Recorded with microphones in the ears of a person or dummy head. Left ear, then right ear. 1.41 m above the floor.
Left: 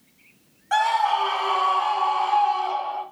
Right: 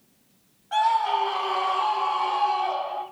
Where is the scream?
60° left (ahead or behind), 3 m; by 3.0 s 55° left (ahead or behind), 5 m.